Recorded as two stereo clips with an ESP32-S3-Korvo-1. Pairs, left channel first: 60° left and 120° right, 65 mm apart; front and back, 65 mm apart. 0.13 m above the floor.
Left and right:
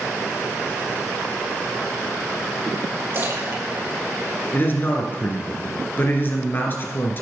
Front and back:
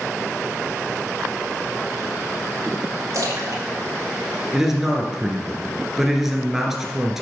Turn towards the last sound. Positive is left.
turn(degrees=95)